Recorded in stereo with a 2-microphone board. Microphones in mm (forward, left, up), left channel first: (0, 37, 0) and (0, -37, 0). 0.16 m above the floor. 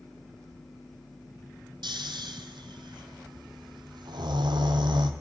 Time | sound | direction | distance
1.8 | snoring | 85° right | 0.9 m